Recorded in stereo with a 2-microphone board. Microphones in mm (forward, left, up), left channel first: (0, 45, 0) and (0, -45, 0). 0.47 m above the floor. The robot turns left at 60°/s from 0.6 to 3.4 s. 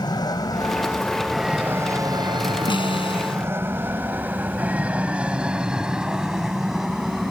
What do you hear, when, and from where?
0.0 s an aircraft: 50° left (ahead or behind); by 7.3 s centre (ahead or behind)
2.7 s a snare drum: 115° left; by 3.4 s 75° left